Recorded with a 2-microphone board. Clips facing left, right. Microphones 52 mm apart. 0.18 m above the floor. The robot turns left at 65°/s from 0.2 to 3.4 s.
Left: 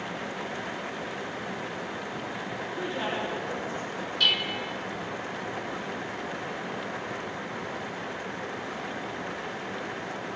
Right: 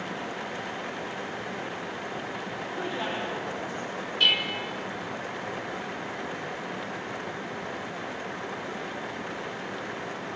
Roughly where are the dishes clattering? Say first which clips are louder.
Right 2 dB; right.